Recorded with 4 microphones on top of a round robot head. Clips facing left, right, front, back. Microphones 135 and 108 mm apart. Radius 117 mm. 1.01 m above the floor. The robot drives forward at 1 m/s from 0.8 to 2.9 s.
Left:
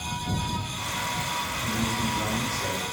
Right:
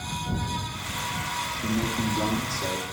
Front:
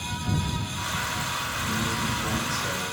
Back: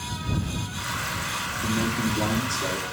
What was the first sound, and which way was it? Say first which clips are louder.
A man speaking: right 3 dB, back 5 dB; 135° right.